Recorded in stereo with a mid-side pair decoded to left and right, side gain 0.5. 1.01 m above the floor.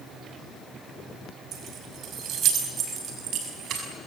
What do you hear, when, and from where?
1.5 s keys jangling: 60° right, 4.5 m; by 3.9 s 65° right, 6 m